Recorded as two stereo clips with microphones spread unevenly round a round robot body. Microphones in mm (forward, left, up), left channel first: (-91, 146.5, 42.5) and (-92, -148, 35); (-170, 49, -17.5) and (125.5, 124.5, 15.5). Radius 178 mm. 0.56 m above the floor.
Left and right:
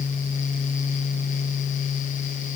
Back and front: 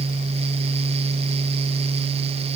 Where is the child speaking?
I don't hear a child speaking.